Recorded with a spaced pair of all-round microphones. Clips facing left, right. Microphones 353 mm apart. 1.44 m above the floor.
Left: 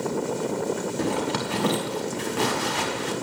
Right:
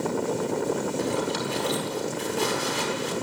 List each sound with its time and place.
1.0 s a zipper: 75° left (ahead or behind), 5.5 m